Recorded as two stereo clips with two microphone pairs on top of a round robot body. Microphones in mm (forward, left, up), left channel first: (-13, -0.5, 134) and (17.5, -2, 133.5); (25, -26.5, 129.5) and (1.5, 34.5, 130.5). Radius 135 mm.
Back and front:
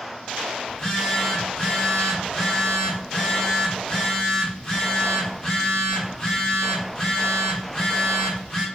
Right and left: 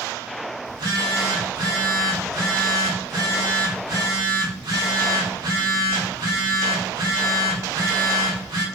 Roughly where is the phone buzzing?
Left.